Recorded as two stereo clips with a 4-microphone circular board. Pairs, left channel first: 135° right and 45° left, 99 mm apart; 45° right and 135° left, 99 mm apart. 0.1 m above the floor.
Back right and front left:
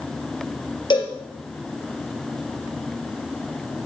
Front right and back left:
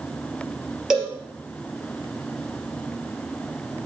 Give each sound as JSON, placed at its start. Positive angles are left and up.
{"t": 0.9, "sound": "a cowbell", "azimuth_deg": -140, "distance_m": 2.5}